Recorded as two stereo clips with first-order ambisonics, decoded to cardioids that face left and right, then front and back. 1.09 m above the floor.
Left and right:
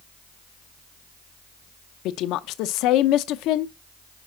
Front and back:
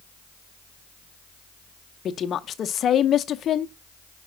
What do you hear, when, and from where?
2.0 s a woman speaking: 60° left, 0.6 m